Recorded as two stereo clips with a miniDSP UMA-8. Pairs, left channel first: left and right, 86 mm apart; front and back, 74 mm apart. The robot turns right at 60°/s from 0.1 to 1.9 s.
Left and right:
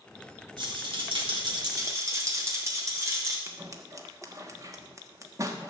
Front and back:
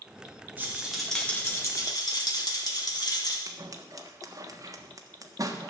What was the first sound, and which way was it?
A rattle, 115° right.